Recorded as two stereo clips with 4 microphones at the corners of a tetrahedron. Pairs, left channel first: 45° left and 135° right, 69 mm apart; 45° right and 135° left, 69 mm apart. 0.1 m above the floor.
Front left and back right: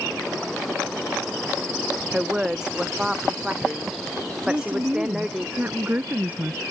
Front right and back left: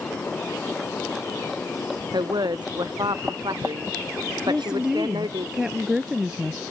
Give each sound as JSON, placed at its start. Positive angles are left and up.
{"t": 2.1, "sound": "a woman speaking", "azimuth_deg": 145}
{"t": 4.5, "sound": "a woman speaking", "azimuth_deg": -160}